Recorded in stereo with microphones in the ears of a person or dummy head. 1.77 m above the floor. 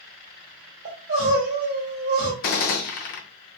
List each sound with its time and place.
0.8 s crying: 55° right (ahead or behind), 1.5 m
2.4 s a gunshot: 45° left (ahead or behind), 0.5 m